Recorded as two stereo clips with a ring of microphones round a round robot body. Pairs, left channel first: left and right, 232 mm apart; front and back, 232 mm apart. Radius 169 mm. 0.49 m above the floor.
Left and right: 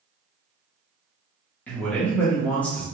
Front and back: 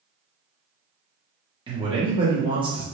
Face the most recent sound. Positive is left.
turn(degrees=160)